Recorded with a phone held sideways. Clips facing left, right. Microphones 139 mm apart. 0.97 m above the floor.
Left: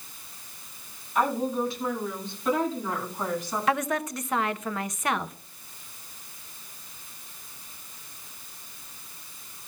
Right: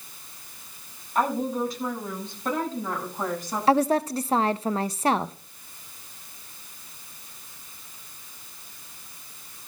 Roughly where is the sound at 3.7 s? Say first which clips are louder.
Right 7 dB; right.